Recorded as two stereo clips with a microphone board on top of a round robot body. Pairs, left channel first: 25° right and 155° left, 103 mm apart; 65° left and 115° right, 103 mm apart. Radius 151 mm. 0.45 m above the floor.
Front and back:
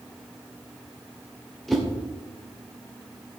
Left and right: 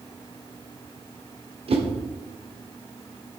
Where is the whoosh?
110° right, 2.5 m.